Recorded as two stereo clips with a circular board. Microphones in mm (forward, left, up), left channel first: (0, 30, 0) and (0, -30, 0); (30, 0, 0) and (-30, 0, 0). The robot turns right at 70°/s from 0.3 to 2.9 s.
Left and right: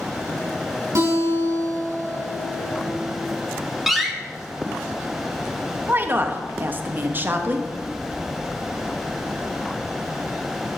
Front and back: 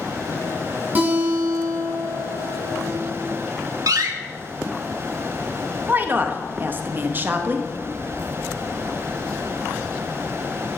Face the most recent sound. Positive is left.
turn(degrees=-135)